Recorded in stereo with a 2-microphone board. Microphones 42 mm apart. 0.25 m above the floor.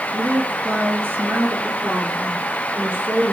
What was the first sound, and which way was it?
A woman speaking, 70° right (ahead or behind).